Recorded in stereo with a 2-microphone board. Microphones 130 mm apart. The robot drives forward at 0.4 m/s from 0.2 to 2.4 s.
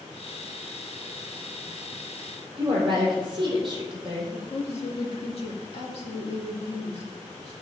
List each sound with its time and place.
2.6 s a woman speaking: 40° right (ahead or behind), 3 m
4.3 s a woman speaking: 55° left (ahead or behind), 1.5 m